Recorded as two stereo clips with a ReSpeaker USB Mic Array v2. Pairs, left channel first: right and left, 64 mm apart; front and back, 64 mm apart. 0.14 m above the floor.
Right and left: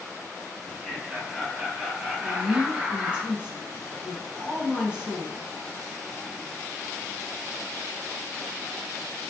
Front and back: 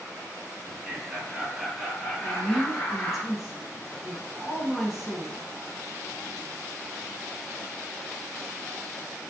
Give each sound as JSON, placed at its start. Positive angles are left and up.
{"t": 0.6, "sound": "laughter", "azimuth_deg": 175, "distance_m": 1.9}
{"t": 2.2, "sound": "a woman speaking", "azimuth_deg": 105, "distance_m": 1.3}